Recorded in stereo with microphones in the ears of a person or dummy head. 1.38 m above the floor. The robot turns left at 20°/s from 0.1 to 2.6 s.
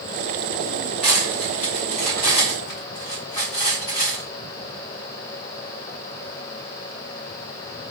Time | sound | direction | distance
1.0 | cutlery clinking | centre (ahead or behind) | 2.5 m